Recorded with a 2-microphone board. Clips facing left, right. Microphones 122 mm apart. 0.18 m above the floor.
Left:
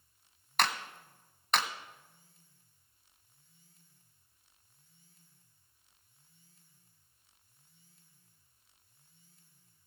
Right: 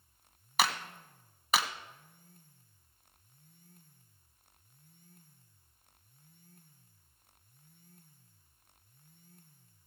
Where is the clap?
5° right (ahead or behind), 1.0 m.